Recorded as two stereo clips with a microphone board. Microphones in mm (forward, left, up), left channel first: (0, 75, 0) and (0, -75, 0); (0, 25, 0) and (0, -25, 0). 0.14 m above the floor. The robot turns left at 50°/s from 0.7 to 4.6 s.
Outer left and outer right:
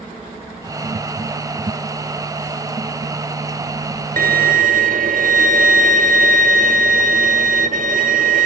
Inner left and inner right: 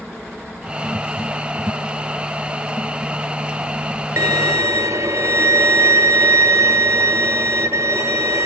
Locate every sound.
4.2 s a violin: 65° right (ahead or behind), 0.8 m; by 8.5 s 70° right (ahead or behind), 0.8 m